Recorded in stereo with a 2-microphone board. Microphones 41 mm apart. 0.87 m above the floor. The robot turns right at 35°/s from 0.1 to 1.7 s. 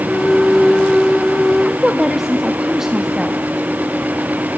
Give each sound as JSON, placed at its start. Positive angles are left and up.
{"t": 1.6, "sound": "a woman speaking", "side_deg": -10, "distance_m": 1.4}